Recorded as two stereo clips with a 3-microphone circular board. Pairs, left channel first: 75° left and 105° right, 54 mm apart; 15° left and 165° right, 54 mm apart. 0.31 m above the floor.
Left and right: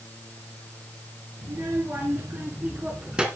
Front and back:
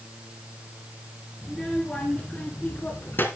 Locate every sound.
1.4 s a child speaking: 70° right, 4 m; by 3.3 s 30° right, 3 m